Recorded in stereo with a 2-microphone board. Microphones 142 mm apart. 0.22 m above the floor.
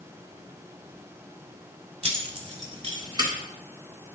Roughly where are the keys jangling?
Right.